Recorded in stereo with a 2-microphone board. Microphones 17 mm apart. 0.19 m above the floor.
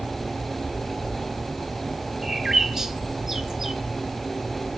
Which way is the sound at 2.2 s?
25° right (ahead or behind).